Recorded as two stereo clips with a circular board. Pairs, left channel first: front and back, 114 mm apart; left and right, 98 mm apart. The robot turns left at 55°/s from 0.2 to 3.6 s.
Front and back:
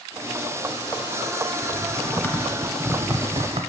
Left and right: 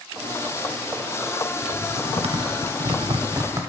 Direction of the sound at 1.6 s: 40° right.